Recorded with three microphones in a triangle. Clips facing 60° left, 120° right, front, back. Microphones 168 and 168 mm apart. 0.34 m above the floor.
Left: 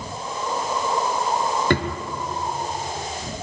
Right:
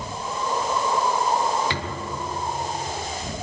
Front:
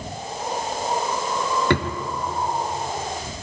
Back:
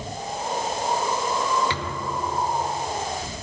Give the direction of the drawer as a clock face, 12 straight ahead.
11 o'clock.